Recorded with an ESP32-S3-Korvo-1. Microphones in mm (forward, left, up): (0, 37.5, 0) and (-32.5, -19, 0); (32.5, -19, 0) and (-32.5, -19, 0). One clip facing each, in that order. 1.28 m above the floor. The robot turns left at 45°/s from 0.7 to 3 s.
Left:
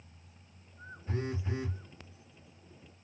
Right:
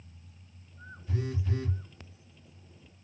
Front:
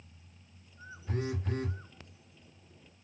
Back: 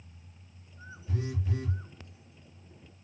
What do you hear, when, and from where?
1.1 s a phone buzzing: 20° left, 0.6 m; by 1.8 s 15° right, 0.6 m